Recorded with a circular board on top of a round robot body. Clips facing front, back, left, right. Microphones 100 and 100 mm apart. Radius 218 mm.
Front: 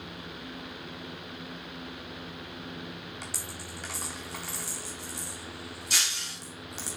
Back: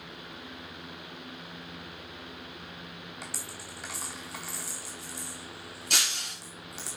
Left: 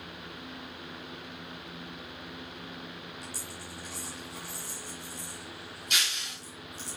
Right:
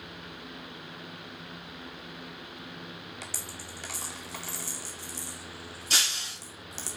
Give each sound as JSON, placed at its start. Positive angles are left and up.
{"t": 3.2, "sound": "a dropped coin", "azimuth_deg": -90, "distance_m": 0.6}
{"t": 5.9, "sound": "breaking glass", "azimuth_deg": -145, "distance_m": 2.5}